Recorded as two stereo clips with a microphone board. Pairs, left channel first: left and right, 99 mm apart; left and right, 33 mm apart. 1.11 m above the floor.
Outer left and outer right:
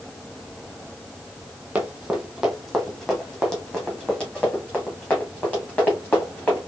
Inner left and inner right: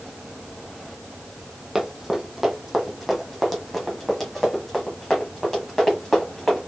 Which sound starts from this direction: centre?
Running footsteps, at 1.8 s.